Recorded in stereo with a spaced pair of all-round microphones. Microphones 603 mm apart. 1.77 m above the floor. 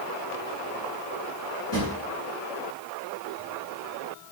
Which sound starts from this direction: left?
A drawer, at 1.7 s.